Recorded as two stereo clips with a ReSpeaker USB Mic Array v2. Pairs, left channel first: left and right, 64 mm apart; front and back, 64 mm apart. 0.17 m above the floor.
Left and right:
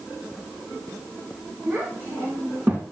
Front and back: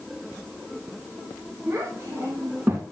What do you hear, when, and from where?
1.7 s a child speaking: 135° right, 2.5 m